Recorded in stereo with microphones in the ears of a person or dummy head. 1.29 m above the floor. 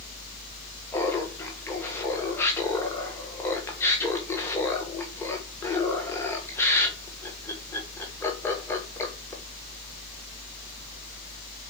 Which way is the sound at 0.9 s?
15° left (ahead or behind).